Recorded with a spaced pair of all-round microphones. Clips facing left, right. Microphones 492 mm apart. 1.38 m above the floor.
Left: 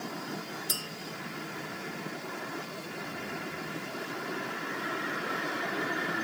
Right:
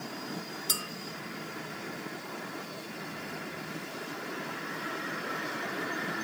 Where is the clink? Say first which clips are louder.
Even; 25° right (ahead or behind), 0.6 m.